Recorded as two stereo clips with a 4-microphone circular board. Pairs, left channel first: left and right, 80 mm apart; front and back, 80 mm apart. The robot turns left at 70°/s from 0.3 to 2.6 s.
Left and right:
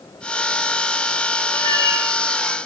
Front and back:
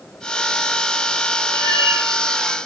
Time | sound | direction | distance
1.5 | a cat meowing | 150° left | 2 m